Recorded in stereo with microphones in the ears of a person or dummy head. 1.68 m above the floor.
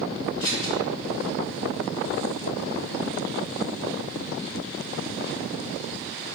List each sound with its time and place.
0.4 s scissors: 40° left (ahead or behind), 1.3 m